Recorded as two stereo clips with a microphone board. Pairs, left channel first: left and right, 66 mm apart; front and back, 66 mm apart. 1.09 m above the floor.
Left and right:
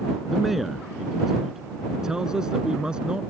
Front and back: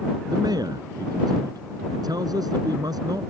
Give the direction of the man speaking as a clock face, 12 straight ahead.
6 o'clock.